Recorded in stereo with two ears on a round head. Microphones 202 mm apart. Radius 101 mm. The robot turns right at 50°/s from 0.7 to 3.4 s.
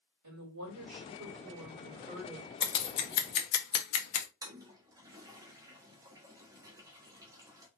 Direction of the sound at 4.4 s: 15° right (ahead or behind).